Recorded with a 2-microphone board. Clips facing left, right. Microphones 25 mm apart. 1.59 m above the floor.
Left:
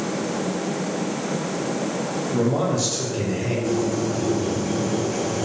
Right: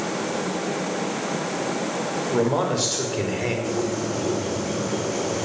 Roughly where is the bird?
Centre.